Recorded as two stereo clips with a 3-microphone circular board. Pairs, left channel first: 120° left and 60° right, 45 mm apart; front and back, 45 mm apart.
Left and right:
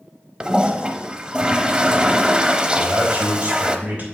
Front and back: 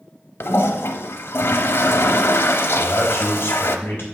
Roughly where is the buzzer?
I don't hear a buzzer.